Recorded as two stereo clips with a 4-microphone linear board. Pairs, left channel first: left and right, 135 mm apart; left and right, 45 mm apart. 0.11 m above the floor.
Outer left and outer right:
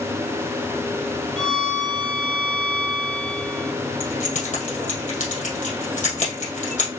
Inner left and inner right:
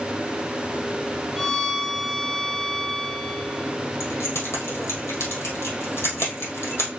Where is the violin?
5° left (ahead or behind), 0.5 m.